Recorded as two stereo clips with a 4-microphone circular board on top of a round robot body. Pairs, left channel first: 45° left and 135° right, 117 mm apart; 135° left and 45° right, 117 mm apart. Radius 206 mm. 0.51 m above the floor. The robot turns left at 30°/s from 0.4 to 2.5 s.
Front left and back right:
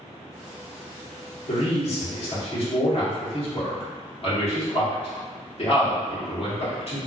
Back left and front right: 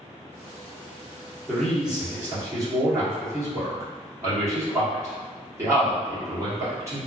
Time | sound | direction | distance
1.5 | a man speaking | 50° left | 1.6 m